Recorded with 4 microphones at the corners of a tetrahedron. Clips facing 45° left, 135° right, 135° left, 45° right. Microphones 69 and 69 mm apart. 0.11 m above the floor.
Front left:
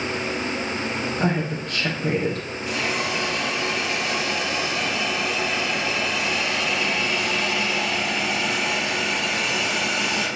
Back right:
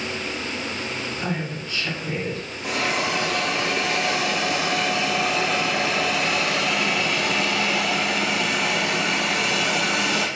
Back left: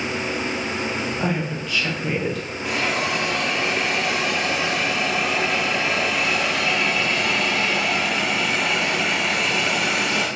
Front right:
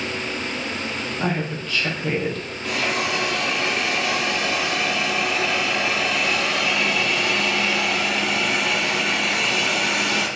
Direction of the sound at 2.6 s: 150° right.